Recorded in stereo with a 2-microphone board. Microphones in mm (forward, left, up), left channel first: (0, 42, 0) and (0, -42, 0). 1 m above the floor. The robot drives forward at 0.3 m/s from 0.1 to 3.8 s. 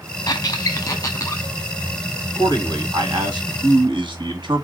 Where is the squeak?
45° left (ahead or behind), 0.7 m; by 1.4 s 30° left (ahead or behind), 0.9 m.